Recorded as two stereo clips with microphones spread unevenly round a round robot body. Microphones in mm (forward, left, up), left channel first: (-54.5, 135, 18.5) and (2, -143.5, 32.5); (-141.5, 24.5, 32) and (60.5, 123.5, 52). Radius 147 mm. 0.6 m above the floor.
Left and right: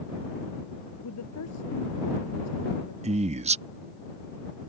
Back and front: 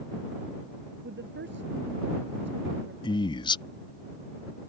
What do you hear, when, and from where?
1.0 s a woman speaking: 65° left
3.0 s a man speaking: 125° right